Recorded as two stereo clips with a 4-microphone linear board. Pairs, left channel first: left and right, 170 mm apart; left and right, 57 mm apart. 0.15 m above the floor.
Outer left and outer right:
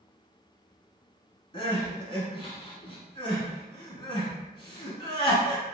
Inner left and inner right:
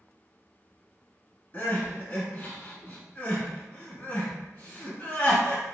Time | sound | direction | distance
1.5 | crying | 30° left (ahead or behind) | 0.9 m